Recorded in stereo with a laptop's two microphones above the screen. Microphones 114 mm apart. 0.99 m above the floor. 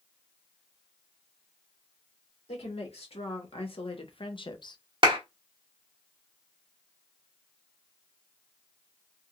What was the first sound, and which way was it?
A woman speaking, 55° left (ahead or behind).